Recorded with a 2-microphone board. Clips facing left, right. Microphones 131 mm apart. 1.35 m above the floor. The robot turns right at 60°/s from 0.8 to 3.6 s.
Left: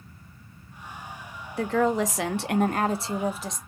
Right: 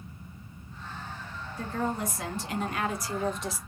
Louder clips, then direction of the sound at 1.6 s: Left 8 dB; 65° left.